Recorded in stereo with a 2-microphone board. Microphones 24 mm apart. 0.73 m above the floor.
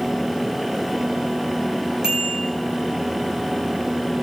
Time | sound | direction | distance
2.0 | a bicycle bell | 25° right (ahead or behind) | 9 m